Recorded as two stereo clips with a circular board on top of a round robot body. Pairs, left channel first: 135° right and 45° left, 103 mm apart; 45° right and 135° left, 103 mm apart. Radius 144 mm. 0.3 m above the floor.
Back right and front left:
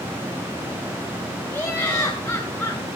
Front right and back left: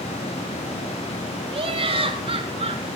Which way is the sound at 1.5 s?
150° left.